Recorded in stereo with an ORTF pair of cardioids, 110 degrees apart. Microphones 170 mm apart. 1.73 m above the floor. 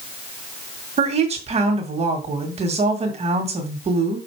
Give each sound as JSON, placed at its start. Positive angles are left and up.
{"t": 1.0, "sound": "a woman speaking", "azimuth_deg": -40, "distance_m": 2.0}